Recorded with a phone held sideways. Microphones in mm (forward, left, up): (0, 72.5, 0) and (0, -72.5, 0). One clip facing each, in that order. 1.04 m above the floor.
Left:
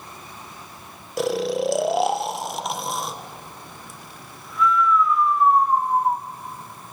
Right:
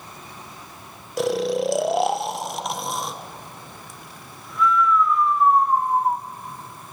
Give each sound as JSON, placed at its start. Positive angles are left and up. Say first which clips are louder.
{"t": 1.2, "sound": "snoring", "louder": "right 1 dB", "side_deg": 0, "distance_m": 0.7}